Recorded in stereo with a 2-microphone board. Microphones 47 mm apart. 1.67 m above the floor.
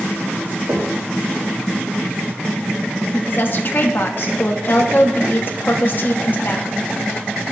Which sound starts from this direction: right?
Knocking, at 0.7 s.